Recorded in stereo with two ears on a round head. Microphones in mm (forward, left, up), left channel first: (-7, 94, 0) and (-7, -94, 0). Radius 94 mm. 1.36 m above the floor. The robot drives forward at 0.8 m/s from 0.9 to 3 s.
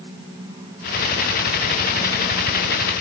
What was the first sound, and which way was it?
Only background noise.